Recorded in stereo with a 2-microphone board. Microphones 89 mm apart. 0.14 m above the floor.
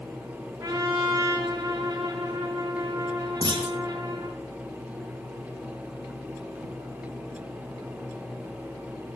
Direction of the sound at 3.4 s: 60° right (ahead or behind).